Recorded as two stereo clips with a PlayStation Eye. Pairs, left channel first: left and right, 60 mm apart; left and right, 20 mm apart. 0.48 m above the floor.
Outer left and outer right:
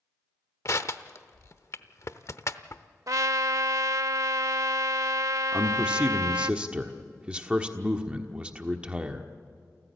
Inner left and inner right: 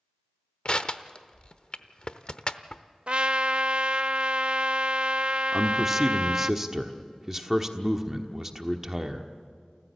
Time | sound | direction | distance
0.7 | crushing | 55° left (ahead or behind) | 0.8 m
3.1 | a trumpet | 65° right (ahead or behind) | 0.6 m
5.5 | a man speaking | 15° right (ahead or behind) | 1.2 m